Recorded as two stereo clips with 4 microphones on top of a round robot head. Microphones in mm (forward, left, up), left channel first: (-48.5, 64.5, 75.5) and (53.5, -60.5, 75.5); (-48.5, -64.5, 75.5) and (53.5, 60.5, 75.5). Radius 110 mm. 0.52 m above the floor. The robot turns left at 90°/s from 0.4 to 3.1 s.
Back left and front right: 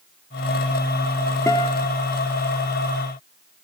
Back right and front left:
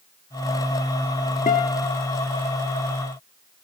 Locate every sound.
1.5 s a guitar: 160° right, 0.6 m; by 2.0 s 155° left, 0.6 m